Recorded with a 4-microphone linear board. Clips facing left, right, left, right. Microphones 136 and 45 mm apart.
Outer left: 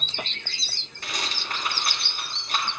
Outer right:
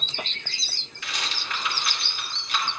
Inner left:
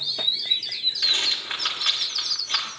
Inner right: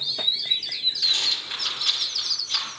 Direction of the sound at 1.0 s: 40° left (ahead or behind).